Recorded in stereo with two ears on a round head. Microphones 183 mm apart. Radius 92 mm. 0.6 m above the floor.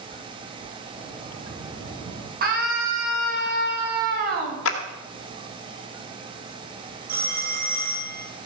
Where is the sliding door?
20° right (ahead or behind), 6.5 m.